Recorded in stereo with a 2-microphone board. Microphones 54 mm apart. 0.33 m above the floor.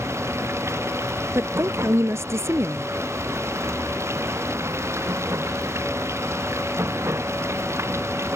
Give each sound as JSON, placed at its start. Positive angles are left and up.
{"t": 0.0, "sound": "running water", "side_deg": -60}
{"t": 1.4, "sound": "a woman speaking", "side_deg": -60}